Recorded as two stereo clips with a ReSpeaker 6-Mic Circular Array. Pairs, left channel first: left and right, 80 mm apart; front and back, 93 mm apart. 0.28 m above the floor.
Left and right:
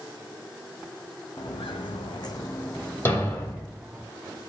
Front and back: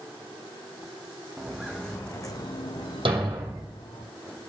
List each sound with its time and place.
1.4 s footsteps: 100° left, 1.6 m; by 4.0 s 10° right, 2.5 m
3.0 s a thud: 150° left, 2.5 m